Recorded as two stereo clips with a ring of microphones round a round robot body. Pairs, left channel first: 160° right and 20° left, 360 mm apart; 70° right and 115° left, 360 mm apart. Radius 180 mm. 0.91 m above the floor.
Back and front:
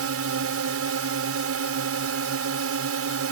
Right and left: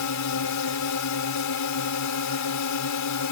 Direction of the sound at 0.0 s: 25° right.